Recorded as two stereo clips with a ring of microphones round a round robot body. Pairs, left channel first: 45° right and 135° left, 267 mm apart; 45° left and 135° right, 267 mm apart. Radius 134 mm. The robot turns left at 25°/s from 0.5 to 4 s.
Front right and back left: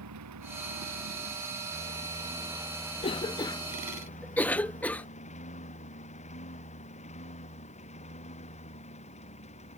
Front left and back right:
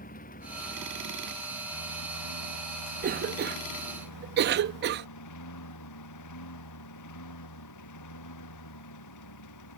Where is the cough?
100° right; by 5.1 s 125° right.